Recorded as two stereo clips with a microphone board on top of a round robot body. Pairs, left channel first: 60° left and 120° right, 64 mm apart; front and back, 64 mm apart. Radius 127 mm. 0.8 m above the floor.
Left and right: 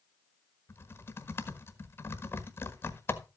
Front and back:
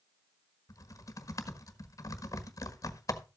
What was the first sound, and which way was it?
Typing on a keyboard, 15° left.